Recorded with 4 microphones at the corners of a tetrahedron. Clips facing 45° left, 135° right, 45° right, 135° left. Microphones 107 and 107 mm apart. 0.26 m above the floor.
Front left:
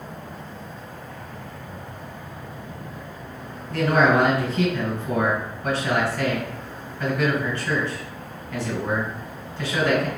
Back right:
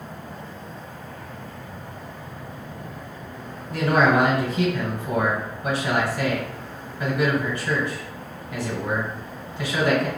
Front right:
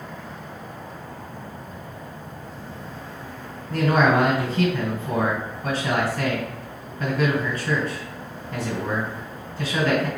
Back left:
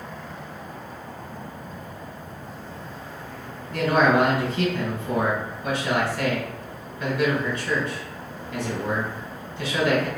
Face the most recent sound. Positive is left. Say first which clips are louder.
# even, even
turn(degrees=-65)